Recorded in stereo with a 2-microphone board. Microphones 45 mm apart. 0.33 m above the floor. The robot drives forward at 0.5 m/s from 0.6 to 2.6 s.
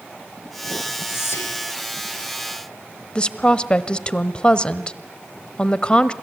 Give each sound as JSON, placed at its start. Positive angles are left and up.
{"t": 1.1, "sound": "whispering", "side_deg": 70, "distance_m": 6.5}
{"t": 3.1, "sound": "a woman speaking", "side_deg": 25, "distance_m": 1.3}